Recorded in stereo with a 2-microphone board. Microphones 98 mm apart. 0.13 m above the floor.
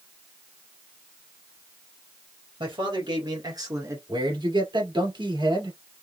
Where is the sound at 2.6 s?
60° right (ahead or behind), 2 m; by 4.0 s 30° right (ahead or behind), 1.3 m.